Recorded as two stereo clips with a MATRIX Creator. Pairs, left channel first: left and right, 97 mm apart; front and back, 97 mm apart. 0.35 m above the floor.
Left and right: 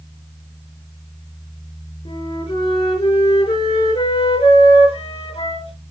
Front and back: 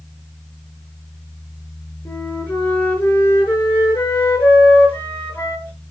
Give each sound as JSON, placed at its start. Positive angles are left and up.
{"t": 2.0, "sound": "a flute", "azimuth_deg": 70, "distance_m": 6.0}